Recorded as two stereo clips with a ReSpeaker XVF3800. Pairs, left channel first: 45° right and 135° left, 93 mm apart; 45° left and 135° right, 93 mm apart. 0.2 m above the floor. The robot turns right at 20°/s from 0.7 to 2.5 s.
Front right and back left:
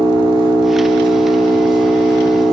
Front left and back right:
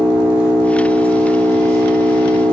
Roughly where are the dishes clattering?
I don't hear dishes clattering.